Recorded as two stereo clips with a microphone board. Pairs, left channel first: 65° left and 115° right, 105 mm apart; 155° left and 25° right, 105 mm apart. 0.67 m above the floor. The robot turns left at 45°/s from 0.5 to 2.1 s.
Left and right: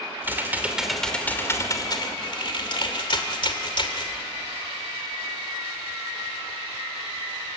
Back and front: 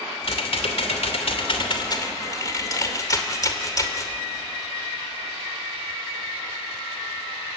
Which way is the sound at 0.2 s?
175° left.